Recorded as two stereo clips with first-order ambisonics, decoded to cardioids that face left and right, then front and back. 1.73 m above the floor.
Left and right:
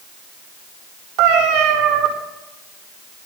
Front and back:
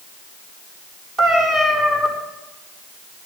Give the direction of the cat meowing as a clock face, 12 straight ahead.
4 o'clock.